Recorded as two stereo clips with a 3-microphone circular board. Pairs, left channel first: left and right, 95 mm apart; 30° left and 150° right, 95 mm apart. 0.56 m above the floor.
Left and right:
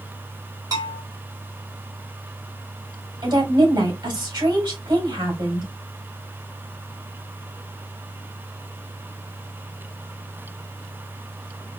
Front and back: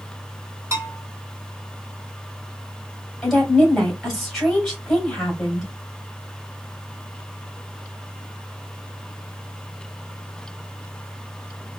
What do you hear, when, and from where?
0.7 s a bell: 105° right, 1.7 m
3.2 s a woman speaking: 60° right, 2.5 m